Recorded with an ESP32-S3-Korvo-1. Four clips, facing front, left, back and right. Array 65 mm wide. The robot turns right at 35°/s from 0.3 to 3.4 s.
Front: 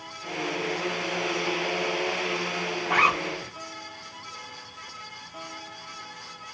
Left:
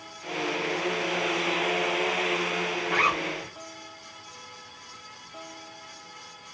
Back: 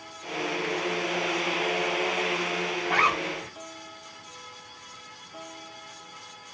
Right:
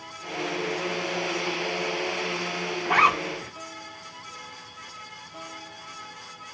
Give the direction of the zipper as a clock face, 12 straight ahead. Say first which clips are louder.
Right 6 dB, front 2 dB; 3 o'clock.